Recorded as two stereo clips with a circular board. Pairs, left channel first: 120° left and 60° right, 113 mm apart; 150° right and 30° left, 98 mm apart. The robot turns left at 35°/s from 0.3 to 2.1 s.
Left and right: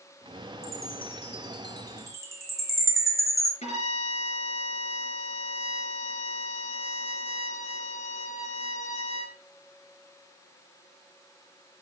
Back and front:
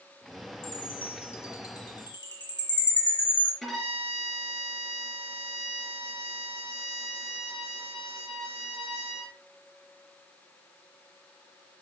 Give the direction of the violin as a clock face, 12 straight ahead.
8 o'clock.